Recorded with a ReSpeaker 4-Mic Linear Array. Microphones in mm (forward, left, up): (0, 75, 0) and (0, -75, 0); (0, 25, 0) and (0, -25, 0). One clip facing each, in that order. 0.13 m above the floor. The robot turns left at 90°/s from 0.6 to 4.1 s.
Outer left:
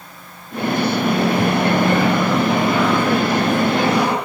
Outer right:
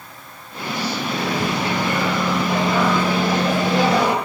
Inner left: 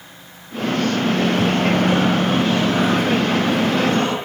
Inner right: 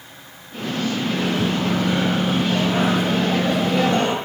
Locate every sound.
1.0 s a microwave: 120° left, 3 m; by 4.2 s 160° right, 3 m